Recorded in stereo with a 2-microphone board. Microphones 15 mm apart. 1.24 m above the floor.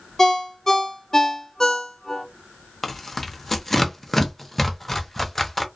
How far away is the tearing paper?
About 0.5 m.